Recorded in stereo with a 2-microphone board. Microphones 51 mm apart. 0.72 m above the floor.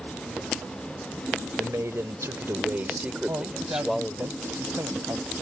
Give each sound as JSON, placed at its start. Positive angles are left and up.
{"t": 1.6, "sound": "a man speaking", "side_deg": -70}
{"t": 3.3, "sound": "a man speaking", "side_deg": -65}